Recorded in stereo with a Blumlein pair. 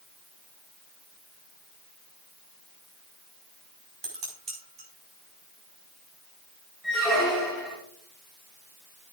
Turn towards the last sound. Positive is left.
turn(degrees=-15)